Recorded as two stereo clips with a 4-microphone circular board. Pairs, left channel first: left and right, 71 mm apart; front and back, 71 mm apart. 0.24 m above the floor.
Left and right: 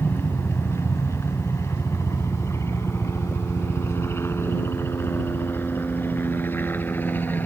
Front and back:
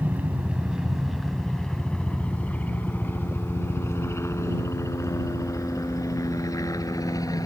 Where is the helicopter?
125° left; by 7.5 s 30° left.